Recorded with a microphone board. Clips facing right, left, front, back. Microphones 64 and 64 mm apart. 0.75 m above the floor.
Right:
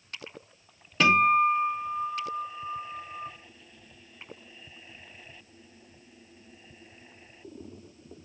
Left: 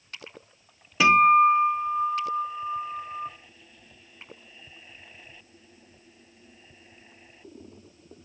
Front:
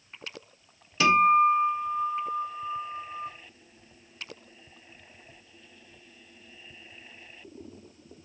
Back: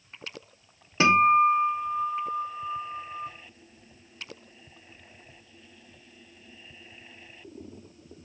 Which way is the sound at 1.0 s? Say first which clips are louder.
Left 4 dB, back 1 dB; 165° left.